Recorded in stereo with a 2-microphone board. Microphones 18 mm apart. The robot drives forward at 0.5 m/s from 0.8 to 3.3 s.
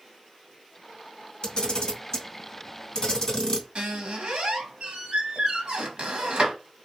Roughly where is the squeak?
Right.